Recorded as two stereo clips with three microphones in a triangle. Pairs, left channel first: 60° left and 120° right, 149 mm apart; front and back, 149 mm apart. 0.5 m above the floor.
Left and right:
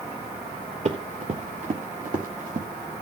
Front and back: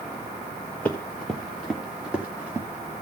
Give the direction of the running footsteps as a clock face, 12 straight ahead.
3 o'clock.